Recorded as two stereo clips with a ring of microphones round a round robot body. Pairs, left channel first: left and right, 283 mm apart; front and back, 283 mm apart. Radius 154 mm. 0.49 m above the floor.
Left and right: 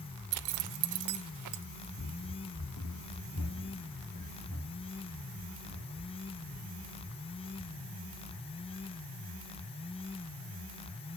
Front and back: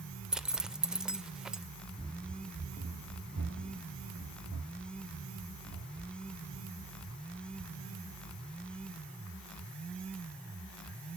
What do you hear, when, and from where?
0.3 s a zipper: 90° right, 0.8 m
2.0 s running footsteps: 85° left, 0.6 m; by 8.6 s 145° left, 7.5 m